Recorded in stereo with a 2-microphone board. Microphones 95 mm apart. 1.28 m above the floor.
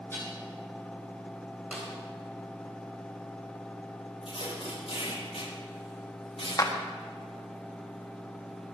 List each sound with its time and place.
0.1 s dishes clattering: 25° left (ahead or behind), 7.5 m
1.7 s a snare drum: 10° right (ahead or behind), 3.5 m
4.2 s tape being pulled: 70° left (ahead or behind), 6.5 m
6.6 s a clap: 40° left (ahead or behind), 1.3 m